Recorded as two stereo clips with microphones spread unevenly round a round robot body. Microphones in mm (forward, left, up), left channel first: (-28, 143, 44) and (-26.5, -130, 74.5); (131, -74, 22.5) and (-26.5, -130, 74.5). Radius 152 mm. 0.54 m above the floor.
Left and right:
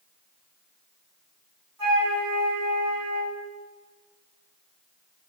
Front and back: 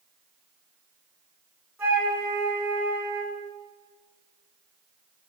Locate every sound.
1.8 s a flute: 85° right, 3.5 m